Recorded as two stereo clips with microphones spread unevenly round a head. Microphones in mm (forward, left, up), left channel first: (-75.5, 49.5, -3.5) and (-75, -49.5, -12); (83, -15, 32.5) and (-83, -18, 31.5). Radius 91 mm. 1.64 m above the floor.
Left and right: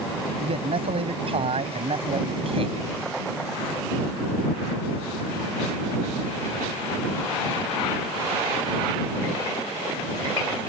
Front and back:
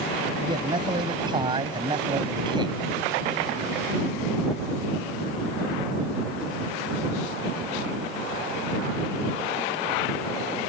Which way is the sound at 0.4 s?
115° right.